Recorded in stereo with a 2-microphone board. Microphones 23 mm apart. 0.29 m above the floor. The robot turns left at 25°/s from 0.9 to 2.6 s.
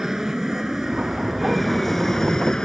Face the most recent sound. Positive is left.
turn(degrees=25)  # may be behind; listen again after turning